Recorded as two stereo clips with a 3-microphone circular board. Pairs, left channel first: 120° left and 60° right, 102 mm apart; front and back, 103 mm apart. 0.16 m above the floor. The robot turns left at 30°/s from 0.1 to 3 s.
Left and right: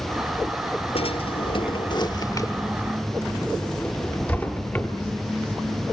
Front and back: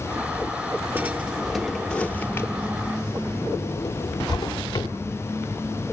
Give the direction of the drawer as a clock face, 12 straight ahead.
8 o'clock.